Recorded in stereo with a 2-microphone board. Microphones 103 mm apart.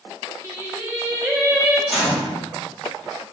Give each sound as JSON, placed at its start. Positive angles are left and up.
{"t": 0.4, "sound": "singing", "side_deg": -20, "distance_m": 1.8}
{"t": 1.9, "sound": "a gunshot", "side_deg": -5, "distance_m": 4.5}